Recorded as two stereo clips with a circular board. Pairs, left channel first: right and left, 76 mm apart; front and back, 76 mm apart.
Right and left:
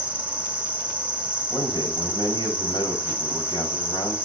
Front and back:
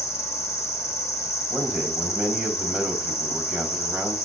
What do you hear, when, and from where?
0.0 s an insect: 25° left, 1.5 m
1.5 s a man speaking: 90° right, 3.5 m